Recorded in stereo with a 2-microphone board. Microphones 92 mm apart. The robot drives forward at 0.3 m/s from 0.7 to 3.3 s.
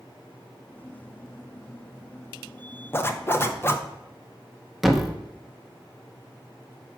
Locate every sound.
2.9 s a zipper: 25° left (ahead or behind), 0.6 m
4.8 s a thud: centre (ahead or behind), 0.8 m